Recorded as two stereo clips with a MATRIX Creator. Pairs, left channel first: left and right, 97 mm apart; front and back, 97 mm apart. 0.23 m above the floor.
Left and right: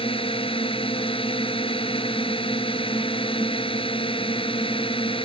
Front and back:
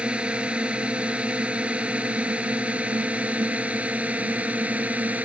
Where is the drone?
100° left; by 5.2 s 105° left.